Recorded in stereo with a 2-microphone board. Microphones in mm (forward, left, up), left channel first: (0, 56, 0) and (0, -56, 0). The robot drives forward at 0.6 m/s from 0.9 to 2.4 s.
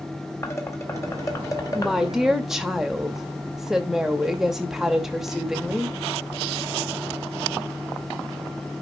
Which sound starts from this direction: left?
Dishes clattering, at 0.4 s.